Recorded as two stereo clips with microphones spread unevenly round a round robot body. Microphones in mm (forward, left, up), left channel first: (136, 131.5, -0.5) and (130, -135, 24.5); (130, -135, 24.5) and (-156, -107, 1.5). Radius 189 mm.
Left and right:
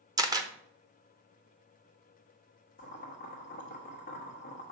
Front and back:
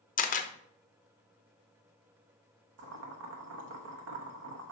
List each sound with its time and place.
0.2 s a camera shutter: 20° right, 0.9 m
2.8 s boiling: 145° left, 1.0 m